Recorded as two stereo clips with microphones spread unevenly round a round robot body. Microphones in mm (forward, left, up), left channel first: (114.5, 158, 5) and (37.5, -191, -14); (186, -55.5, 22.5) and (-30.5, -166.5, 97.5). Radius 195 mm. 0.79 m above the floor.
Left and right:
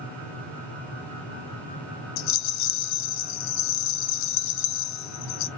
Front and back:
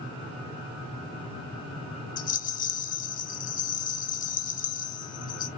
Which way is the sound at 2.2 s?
45° left.